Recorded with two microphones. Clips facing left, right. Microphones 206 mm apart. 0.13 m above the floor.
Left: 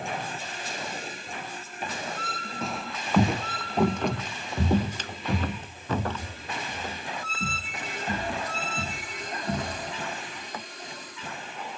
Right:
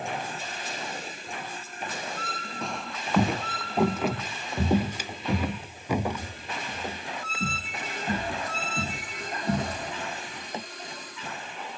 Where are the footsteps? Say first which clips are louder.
Left 1 dB; centre (ahead or behind); by 10.6 s 25° right (ahead or behind).